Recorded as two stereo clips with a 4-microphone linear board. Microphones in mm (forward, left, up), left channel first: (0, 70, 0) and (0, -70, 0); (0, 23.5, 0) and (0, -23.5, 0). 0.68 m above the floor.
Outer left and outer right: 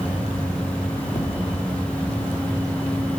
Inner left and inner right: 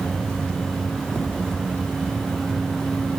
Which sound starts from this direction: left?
Tapping, at 1.1 s.